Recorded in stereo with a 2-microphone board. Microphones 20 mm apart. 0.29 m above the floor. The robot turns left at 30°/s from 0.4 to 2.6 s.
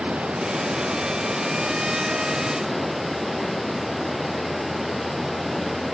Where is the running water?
110° right; by 5.9 s 175° right.